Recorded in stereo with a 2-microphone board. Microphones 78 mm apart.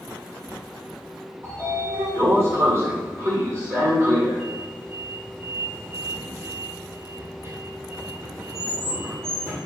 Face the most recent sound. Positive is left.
turn(degrees=-35)  # may be behind; listen again after turning